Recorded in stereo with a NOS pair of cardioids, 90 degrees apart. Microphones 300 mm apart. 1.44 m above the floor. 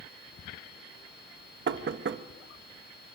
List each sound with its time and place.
1.7 s knocking: 40° right, 1.4 m